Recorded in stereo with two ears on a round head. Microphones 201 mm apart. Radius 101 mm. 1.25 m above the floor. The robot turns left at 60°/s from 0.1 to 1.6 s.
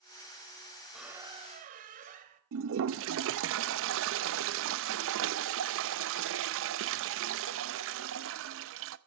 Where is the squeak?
Straight ahead, 2 m; by 2.4 s 40° right, 2 m.